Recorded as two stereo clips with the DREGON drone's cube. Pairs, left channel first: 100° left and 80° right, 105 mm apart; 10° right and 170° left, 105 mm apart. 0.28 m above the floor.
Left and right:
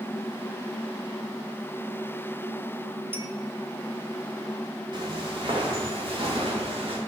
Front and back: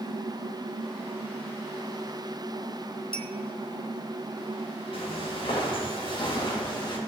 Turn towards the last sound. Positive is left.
turn(degrees=-55)